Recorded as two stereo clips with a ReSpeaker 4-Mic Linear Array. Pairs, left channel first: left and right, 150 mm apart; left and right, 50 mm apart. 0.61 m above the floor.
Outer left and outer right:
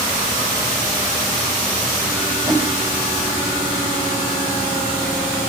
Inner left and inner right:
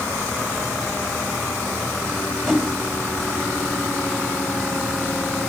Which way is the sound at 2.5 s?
5° left (ahead or behind).